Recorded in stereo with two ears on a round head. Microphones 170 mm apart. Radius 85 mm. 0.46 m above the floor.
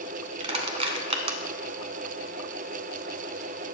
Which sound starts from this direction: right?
Crushing, at 0.4 s.